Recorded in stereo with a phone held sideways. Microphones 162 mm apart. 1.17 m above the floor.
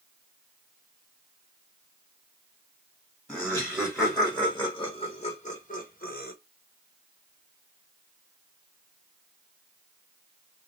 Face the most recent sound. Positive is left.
turn(degrees=75)  # may be behind; listen again after turning